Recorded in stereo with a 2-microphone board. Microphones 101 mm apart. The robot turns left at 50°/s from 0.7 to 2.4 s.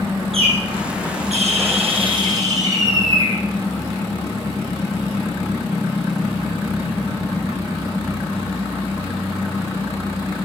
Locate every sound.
0.3 s a bird: 65° right, 6 m; by 3.4 s 150° right, 6 m